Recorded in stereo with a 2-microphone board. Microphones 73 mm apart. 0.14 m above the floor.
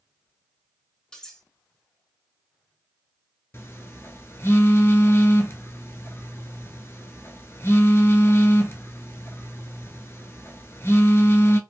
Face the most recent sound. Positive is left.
turn(degrees=35)  # may be behind; listen again after turning